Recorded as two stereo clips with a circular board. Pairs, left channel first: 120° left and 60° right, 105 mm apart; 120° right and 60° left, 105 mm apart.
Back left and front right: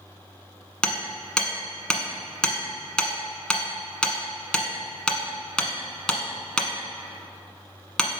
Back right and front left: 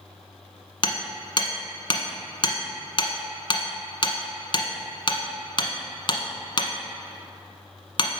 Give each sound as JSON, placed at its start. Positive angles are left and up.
{"t": 0.8, "sound": "hammering", "azimuth_deg": -160, "distance_m": 1.0}